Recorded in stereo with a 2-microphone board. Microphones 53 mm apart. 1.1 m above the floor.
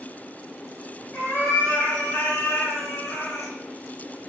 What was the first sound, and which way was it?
A cat meowing, 40° left (ahead or behind).